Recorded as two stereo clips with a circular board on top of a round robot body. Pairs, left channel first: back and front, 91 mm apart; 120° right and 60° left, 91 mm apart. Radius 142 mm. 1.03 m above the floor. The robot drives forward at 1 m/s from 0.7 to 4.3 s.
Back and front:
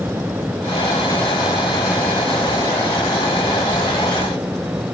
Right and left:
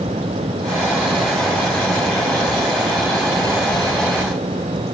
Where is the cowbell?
No cowbell in this recording.